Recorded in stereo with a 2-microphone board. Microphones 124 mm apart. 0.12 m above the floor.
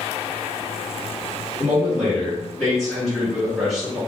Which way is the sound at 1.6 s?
Centre (ahead or behind).